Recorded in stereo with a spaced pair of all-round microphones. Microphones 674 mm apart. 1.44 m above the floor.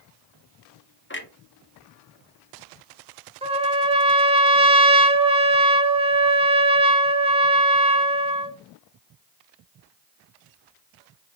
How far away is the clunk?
About 0.6 m.